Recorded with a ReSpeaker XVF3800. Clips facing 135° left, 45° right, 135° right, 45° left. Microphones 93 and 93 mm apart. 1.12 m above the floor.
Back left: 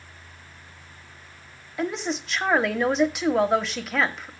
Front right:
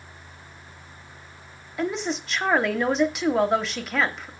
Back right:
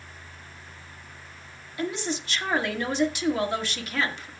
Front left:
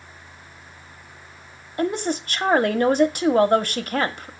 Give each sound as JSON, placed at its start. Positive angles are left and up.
{"t": 1.8, "sound": "a woman speaking", "azimuth_deg": 45, "distance_m": 0.8}